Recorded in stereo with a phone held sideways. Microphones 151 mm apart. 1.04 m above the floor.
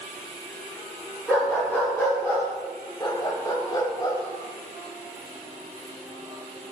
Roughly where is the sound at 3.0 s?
Left.